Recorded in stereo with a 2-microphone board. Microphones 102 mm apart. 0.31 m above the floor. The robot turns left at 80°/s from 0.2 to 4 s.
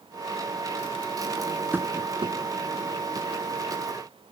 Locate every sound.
1.7 s tapping: 20° right (ahead or behind), 1.2 m; by 2.4 s 70° right (ahead or behind), 1.2 m